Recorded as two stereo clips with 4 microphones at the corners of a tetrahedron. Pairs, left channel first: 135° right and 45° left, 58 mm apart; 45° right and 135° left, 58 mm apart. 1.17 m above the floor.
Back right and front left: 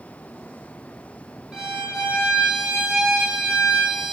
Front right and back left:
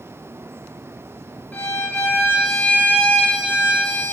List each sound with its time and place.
1.5 s a violin: 20° right, 1.1 m